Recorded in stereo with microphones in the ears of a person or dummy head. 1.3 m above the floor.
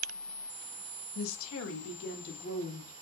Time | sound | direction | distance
1.1 | a woman speaking | 85° left | 0.5 m